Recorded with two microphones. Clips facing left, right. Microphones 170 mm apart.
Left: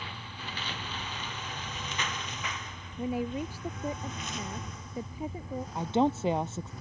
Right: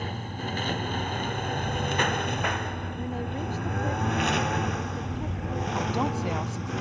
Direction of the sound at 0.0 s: 45° right (ahead or behind).